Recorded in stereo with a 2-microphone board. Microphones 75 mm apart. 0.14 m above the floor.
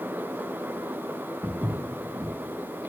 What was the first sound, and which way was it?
Footsteps, 30° right (ahead or behind).